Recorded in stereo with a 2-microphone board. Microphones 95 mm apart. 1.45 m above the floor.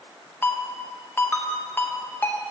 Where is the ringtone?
20° left (ahead or behind), 0.9 m.